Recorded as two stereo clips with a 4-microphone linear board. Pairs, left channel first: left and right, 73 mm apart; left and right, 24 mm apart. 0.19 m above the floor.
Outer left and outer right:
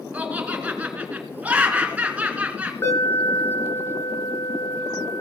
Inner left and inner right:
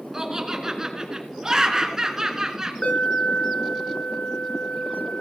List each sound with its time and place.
0.1 s laughter: 20° right (ahead or behind), 2 m
2.8 s an alarm: 40° left (ahead or behind), 2.5 m